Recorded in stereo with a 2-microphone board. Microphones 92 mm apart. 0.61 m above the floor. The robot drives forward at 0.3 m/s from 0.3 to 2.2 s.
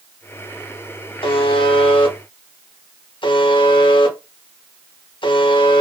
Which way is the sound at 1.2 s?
75° left (ahead or behind).